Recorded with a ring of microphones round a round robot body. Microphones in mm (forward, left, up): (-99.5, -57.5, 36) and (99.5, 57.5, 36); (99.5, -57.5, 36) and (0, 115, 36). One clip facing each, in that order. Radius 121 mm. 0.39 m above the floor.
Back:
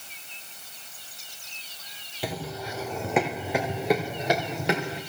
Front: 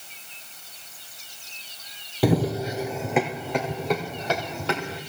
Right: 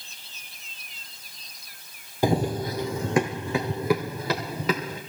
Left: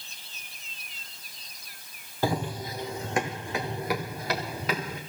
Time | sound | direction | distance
2.2 | running footsteps | 10° left | 0.6 m